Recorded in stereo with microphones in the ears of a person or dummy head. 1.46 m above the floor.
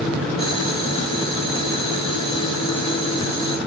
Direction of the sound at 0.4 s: 30° left (ahead or behind).